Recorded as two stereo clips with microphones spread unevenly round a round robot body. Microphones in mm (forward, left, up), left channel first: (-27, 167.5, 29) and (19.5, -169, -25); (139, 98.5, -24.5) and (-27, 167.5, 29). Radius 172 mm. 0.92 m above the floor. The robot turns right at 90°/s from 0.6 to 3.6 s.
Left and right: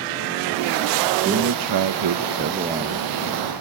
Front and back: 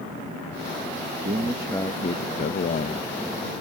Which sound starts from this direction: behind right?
A man speaking, at 1.2 s.